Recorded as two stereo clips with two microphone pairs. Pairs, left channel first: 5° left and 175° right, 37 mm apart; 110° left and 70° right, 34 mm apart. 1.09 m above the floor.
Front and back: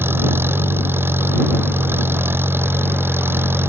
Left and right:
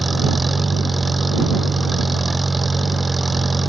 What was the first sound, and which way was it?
An engine running, 160° right.